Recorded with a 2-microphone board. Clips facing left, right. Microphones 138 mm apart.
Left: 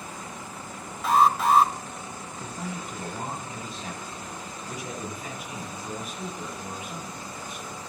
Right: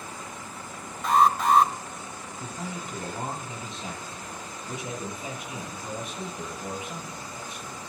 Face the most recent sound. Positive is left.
turn(degrees=-25)  # may be behind; listen again after turning